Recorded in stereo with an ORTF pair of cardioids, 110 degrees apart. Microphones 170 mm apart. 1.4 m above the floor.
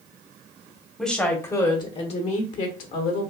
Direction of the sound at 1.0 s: 5° left.